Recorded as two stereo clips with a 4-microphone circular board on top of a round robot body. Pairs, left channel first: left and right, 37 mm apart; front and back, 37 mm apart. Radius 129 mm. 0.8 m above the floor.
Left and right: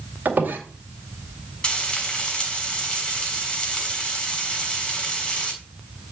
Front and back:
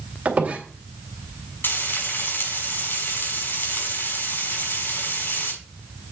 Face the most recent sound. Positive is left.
turn(degrees=20)